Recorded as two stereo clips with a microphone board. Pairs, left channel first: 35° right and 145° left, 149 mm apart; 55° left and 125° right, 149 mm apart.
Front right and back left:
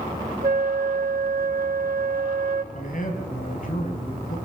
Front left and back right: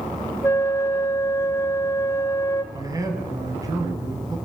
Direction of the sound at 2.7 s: 60° right.